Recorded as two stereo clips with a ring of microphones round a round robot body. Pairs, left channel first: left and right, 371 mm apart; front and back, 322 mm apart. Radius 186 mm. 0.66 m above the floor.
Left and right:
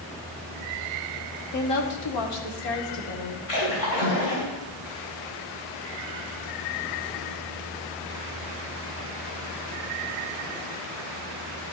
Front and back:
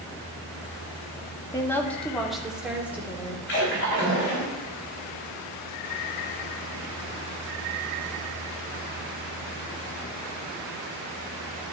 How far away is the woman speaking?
About 1.4 m.